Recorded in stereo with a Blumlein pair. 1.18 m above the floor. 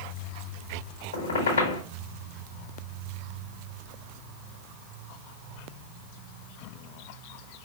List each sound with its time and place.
1.1 s a squeak: 70° left, 1.4 m